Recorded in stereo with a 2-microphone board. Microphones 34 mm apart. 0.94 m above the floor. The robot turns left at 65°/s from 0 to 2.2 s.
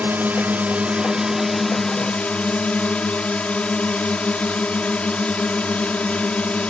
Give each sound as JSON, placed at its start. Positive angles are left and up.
{"t": 0.0, "sound": "a drone", "azimuth_deg": -80}